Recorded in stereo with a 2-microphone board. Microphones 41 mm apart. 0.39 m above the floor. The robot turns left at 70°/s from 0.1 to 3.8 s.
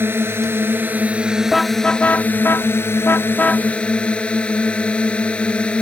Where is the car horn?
Centre (ahead or behind); by 3.7 s 25° left (ahead or behind).